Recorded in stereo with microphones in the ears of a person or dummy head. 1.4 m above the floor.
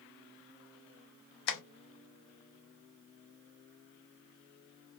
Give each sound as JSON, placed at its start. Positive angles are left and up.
{"t": 1.5, "sound": "tapping", "side_deg": 60, "distance_m": 0.6}